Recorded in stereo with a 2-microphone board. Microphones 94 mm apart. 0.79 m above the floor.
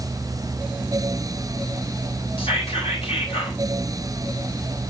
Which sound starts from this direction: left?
Whispering, at 2.4 s.